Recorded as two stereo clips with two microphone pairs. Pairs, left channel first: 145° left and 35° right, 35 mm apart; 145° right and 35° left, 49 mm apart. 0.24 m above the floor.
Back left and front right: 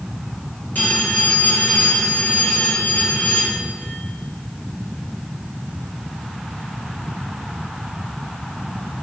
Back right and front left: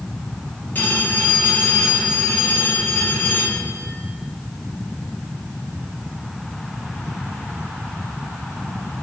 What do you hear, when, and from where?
0.8 s a phone ringing: 160° left, 3 m